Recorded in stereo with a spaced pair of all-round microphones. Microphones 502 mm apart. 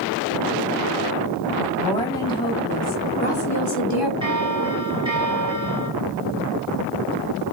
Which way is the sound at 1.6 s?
5° left (ahead or behind).